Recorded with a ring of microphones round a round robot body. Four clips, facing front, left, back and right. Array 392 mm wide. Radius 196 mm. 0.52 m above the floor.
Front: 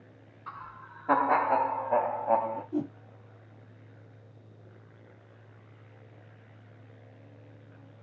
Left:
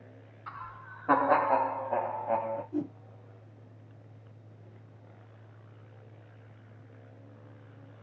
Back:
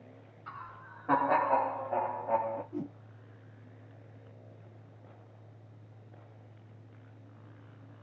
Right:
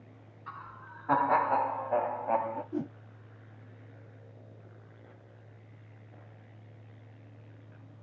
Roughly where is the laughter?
Left.